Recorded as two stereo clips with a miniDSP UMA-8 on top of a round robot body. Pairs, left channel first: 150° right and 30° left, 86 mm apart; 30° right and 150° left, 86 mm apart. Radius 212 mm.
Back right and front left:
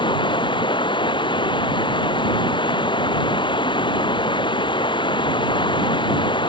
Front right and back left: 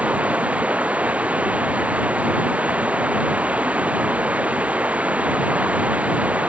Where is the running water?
135° right.